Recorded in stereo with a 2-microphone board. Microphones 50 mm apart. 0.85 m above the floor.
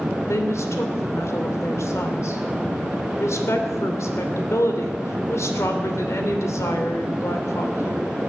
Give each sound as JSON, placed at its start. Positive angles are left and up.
{"t": 0.3, "sound": "a woman speaking", "side_deg": 70, "distance_m": 3.0}